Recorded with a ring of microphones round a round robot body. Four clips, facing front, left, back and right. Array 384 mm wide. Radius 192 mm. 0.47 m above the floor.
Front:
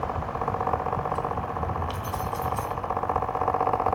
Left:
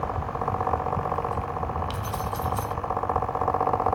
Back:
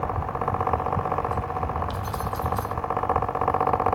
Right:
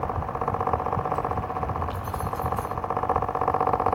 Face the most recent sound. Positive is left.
turn(degrees=95)